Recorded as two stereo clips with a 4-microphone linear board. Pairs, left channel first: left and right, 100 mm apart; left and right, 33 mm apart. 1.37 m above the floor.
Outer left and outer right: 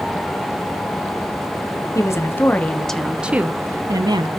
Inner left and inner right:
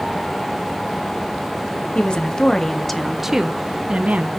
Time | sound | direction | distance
1.9 | a woman speaking | 30° left (ahead or behind) | 1.0 m